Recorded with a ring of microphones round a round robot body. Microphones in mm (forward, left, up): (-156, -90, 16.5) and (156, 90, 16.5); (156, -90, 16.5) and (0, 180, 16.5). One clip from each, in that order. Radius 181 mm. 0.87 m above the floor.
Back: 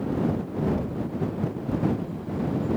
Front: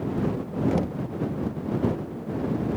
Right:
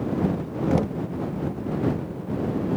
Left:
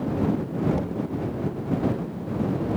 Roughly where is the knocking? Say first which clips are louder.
Front 2 dB, right 3 dB; ahead.